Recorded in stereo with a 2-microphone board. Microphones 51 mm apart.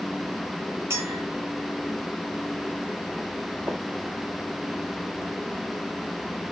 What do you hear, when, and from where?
0.9 s a clink: 65° right (ahead or behind), 2.0 m
3.7 s tapping: 55° right (ahead or behind), 2 m